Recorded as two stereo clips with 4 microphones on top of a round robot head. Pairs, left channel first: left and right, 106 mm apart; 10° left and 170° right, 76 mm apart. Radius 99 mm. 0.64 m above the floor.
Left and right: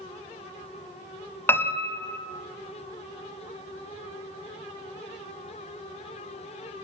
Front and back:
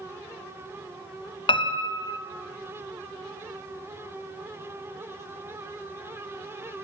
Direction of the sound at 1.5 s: 20° left.